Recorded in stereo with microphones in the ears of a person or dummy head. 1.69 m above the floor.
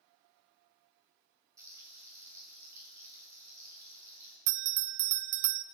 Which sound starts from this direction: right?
A bell, at 4.5 s.